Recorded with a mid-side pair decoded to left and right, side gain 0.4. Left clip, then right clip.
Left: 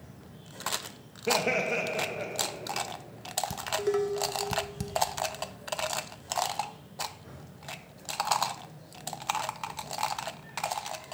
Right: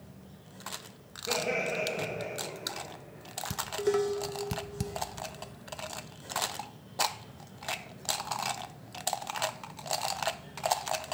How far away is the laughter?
About 1.0 m.